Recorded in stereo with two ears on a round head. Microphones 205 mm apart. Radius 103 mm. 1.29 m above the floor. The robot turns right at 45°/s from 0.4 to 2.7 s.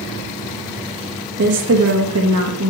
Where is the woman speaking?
125° right, 1.4 m; by 2.7 s 65° right, 1.4 m.